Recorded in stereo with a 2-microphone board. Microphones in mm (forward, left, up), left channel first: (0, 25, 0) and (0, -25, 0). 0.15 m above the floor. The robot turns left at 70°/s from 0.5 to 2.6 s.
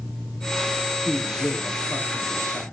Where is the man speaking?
170° right, 4.5 m; by 2.6 s 80° left, 4.5 m.